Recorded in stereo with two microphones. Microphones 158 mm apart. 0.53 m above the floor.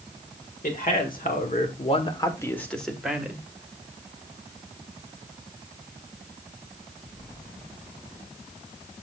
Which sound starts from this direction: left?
A man speaking, at 0.6 s.